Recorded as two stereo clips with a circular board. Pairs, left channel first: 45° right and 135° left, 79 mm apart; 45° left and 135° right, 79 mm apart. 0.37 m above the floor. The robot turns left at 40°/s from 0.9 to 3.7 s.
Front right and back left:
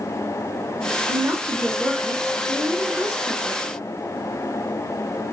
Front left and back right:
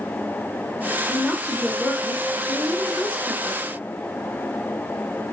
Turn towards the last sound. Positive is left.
turn(degrees=50)